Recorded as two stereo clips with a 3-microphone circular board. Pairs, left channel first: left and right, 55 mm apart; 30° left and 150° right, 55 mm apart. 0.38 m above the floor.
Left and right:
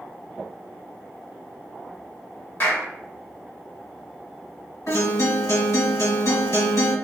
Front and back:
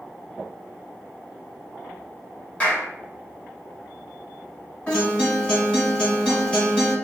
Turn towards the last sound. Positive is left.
turn(degrees=100)